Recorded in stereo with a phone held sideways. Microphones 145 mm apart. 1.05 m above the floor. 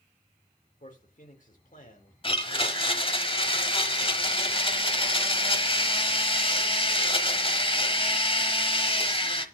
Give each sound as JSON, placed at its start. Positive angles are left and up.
{"t": 0.8, "sound": "a man speaking", "side_deg": 65, "distance_m": 4.0}
{"t": 2.2, "sound": "a blender", "side_deg": 40, "distance_m": 1.2}